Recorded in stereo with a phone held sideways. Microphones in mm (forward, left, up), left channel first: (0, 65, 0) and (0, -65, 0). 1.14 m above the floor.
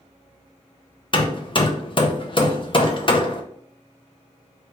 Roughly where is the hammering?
Left.